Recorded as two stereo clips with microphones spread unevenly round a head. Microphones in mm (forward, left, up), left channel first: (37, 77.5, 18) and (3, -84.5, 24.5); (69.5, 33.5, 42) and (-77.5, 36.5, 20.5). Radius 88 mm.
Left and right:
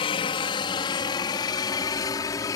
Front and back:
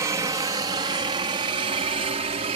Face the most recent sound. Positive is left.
turn(degrees=145)